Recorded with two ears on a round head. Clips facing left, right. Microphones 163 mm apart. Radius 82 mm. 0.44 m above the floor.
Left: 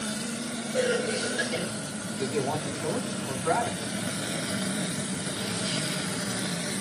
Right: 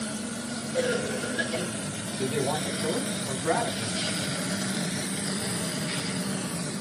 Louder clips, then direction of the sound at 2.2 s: Right 1 dB; 5° right (ahead or behind).